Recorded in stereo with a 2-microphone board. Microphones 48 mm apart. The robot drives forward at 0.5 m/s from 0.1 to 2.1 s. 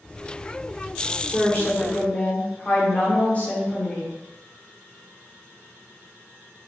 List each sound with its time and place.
1.3 s a woman speaking: 30° left (ahead or behind), 0.9 m